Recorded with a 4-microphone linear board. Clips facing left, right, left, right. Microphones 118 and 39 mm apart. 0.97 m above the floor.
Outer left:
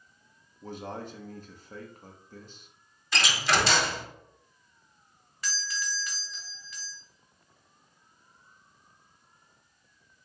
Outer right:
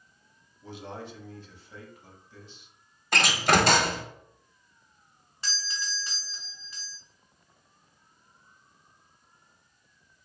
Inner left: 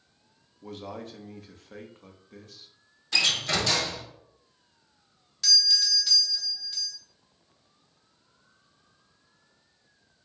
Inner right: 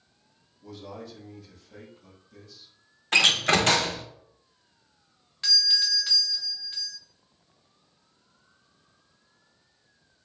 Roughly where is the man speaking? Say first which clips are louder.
Outer left 2 dB, inner left 2 dB; left.